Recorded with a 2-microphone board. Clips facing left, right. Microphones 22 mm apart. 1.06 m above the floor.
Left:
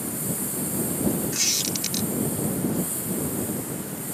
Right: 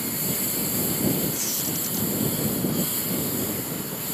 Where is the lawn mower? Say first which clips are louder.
Right 1 dB; 55° right (ahead or behind).